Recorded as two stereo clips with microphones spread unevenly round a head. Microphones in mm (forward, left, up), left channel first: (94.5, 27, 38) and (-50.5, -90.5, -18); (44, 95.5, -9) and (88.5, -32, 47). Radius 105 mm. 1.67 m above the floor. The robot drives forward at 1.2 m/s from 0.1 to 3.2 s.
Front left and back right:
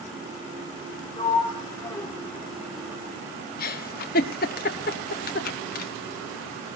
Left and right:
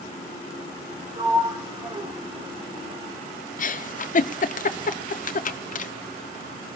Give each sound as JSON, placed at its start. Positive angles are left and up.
{"t": 1.2, "sound": "a sliding door", "azimuth_deg": -20, "distance_m": 3.5}
{"t": 3.6, "sound": "a giggle", "azimuth_deg": 90, "distance_m": 1.3}